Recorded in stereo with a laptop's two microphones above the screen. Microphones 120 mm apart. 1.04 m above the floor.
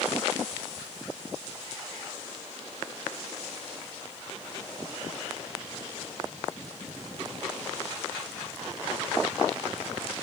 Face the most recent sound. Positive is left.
No sound to turn to.